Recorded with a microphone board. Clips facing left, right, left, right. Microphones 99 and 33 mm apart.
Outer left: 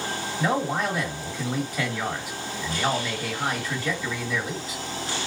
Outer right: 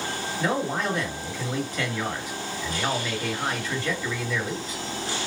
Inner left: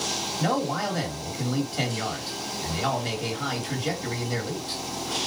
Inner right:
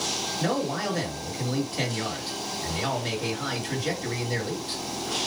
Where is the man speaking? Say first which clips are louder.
Outer left 1 dB, inner left 2 dB; 10° left (ahead or behind), 1.8 m.